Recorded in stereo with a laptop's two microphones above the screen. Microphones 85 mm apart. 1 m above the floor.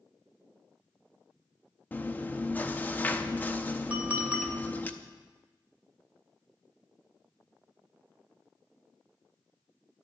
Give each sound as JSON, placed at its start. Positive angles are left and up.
{"t": 1.9, "sound": "chewing", "side_deg": 20, "distance_m": 0.7}
{"t": 3.9, "sound": "a clink", "side_deg": -20, "distance_m": 2.5}